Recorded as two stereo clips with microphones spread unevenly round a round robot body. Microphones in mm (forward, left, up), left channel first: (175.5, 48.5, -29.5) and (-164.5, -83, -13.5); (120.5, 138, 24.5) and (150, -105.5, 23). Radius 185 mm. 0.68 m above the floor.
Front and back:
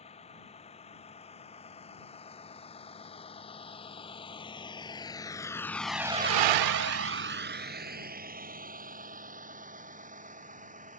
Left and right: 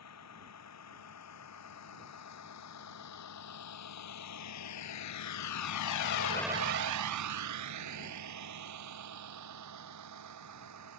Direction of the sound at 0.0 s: 95° left.